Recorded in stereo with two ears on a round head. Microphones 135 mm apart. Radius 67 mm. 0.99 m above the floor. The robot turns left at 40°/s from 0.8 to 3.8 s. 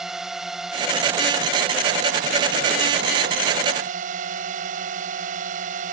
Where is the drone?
5° right; by 5.9 s 125° right.